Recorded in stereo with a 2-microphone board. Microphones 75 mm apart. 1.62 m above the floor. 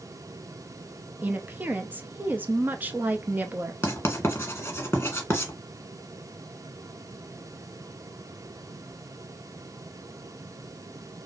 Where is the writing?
30° left (ahead or behind), 1.5 m.